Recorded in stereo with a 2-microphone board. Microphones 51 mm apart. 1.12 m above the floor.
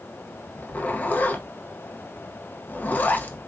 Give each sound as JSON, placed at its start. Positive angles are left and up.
{"t": 0.6, "sound": "a zipper", "side_deg": 30, "distance_m": 0.6}